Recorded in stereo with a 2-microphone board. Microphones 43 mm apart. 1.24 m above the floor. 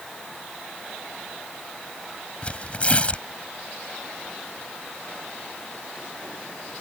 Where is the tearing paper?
30° left (ahead or behind).